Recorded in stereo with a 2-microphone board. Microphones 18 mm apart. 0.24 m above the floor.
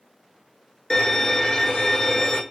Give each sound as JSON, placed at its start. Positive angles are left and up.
{"t": 0.9, "sound": "a violin", "side_deg": 45, "distance_m": 1.0}